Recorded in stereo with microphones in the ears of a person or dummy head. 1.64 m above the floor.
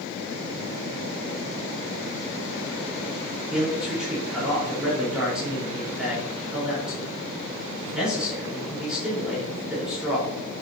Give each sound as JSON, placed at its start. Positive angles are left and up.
{"t": 3.5, "sound": "a man speaking", "side_deg": -5, "distance_m": 4.5}